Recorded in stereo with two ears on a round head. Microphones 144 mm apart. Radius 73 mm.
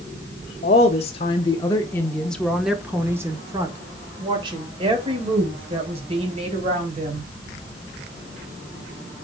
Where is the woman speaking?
45° left (ahead or behind), 1.1 m; by 7.3 s 40° right (ahead or behind), 3 m.